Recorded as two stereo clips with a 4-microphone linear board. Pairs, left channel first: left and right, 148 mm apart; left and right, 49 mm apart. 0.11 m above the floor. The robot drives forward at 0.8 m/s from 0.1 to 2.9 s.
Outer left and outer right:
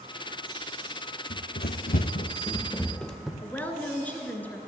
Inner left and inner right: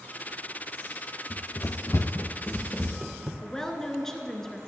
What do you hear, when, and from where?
1.3 s running footsteps: 70° left (ahead or behind), 1.2 m; by 3.3 s 5° right (ahead or behind), 1.3 m
3.4 s a woman speaking: 10° left (ahead or behind), 1.3 m